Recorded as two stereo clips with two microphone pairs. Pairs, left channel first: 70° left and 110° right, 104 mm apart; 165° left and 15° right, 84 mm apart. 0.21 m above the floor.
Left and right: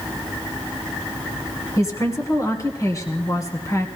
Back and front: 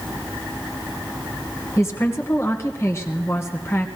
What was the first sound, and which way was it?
A woman speaking, 120° left.